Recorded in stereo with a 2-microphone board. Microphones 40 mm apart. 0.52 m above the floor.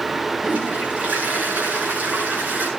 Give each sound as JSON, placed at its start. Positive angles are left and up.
{"t": 0.4, "sound": "a toilet flushing", "side_deg": -35, "distance_m": 8.0}